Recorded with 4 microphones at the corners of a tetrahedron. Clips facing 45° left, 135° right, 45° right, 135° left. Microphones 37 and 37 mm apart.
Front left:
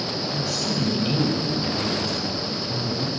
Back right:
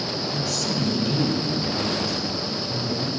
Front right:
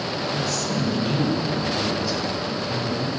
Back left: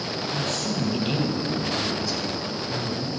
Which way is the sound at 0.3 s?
135° left.